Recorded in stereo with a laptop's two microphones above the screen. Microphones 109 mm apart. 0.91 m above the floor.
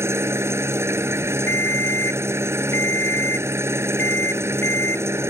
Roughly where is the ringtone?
Left.